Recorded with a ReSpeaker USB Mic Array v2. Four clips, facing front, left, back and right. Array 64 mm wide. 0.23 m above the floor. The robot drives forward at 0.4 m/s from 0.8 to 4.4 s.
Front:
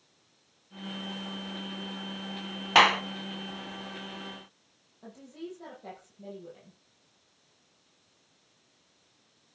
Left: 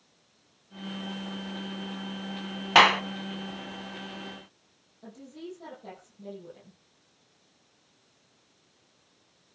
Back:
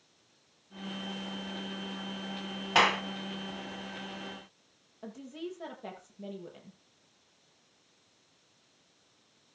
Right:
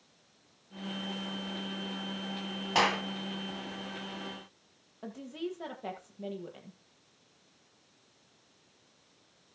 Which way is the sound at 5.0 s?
115° right.